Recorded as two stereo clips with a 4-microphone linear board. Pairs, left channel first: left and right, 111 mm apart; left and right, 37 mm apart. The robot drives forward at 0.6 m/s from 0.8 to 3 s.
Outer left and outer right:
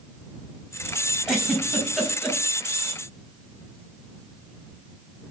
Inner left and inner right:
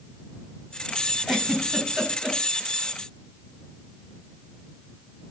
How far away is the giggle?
About 4.5 m.